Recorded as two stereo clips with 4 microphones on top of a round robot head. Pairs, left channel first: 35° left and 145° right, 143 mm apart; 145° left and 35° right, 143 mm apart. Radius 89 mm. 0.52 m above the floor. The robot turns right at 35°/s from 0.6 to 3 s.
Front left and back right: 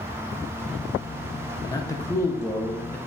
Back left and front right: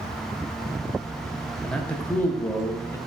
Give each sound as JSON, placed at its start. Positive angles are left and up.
{"t": 1.6, "sound": "a man speaking", "azimuth_deg": 60, "distance_m": 0.7}